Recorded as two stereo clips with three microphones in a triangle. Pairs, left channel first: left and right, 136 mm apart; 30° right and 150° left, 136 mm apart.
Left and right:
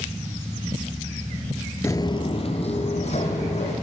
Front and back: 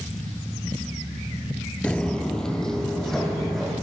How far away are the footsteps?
About 0.6 m.